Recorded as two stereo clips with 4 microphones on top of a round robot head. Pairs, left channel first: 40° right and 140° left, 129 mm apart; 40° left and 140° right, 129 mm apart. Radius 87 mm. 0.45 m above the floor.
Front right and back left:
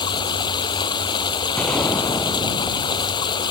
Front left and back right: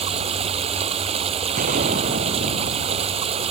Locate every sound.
0.0 s running water: 95° right
1.6 s a gunshot: 120° right